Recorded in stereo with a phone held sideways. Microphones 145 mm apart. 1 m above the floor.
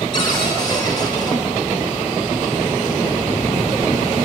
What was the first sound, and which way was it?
A cupboard door, 30° left (ahead or behind).